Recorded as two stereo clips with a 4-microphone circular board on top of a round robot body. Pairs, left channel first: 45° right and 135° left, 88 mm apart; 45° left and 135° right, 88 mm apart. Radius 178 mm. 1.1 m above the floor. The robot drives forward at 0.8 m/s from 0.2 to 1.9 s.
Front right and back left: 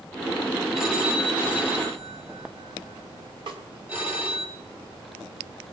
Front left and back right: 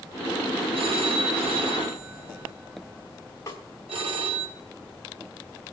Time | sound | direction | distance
0.7 | a phone ringing | 140° right | 2 m
3.5 | a snare drum | 110° left | 1.4 m